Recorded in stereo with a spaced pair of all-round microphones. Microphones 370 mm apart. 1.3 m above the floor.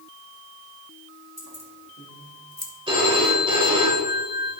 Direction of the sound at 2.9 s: 15° right (ahead or behind).